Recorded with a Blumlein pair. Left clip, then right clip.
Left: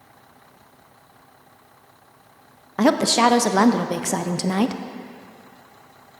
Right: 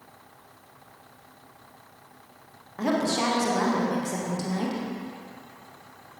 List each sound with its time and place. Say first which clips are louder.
2.8 s a woman speaking: left 9 dB; 30° left, 0.6 m